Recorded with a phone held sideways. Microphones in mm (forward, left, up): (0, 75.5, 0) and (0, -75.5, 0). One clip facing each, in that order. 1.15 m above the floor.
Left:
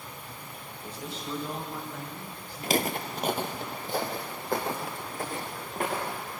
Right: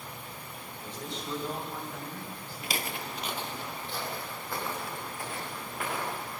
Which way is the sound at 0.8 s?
10° left (ahead or behind).